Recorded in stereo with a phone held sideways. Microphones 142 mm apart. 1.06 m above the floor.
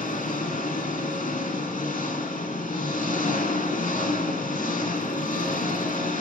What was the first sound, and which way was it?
An engine running, 75° left (ahead or behind).